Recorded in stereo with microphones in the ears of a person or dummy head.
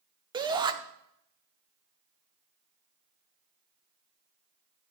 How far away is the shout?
About 0.7 m.